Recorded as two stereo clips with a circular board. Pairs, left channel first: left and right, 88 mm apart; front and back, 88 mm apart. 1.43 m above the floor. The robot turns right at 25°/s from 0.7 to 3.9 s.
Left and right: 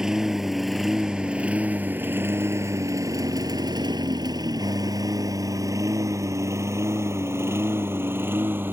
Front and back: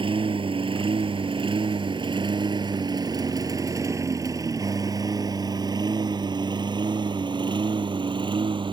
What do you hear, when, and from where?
0.0 s a lawn mower: 175° right; by 8.7 s 155° right